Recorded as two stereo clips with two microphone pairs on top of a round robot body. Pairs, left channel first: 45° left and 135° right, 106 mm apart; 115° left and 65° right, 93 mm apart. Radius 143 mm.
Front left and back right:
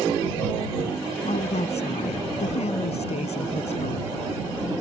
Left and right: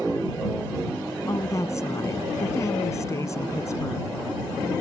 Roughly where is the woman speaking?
Ahead left.